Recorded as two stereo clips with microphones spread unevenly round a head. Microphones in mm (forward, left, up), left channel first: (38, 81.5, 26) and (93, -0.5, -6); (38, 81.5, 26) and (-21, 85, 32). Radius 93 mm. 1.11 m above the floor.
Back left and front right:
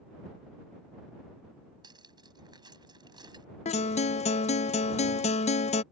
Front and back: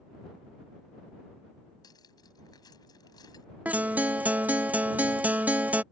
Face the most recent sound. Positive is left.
turn(degrees=110)